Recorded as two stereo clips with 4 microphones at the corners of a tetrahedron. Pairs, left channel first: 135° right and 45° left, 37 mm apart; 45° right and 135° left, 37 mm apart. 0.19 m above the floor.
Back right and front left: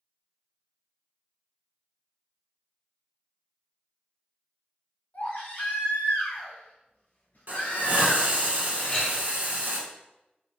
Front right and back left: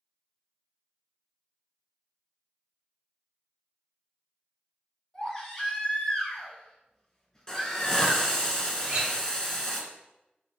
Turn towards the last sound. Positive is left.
turn(degrees=175)